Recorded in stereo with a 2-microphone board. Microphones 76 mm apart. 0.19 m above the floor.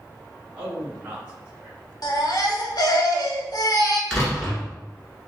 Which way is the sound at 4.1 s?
5° left (ahead or behind).